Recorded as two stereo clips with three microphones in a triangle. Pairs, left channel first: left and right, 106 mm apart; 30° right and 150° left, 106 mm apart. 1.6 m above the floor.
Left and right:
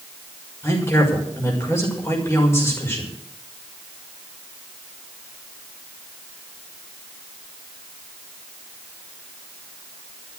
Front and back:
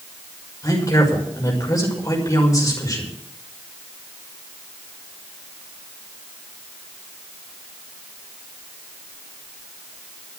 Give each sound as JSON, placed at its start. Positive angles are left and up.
{"t": 0.6, "sound": "a woman speaking", "azimuth_deg": 25, "distance_m": 6.0}